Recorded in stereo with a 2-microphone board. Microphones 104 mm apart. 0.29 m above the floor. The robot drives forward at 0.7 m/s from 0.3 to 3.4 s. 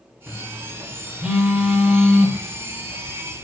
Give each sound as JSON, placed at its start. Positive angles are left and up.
{"t": 0.3, "sound": "a phone buzzing", "side_deg": -15, "distance_m": 4.5}